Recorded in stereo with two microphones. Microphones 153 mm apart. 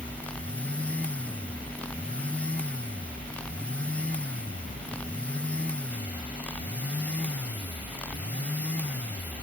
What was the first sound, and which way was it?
Only background noise.